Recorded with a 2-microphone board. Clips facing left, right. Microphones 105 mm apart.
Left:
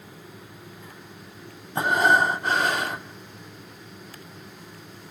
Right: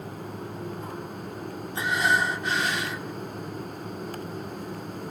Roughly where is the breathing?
Left.